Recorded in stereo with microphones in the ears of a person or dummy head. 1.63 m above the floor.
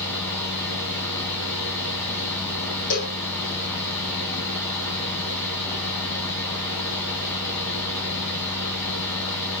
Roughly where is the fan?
Centre.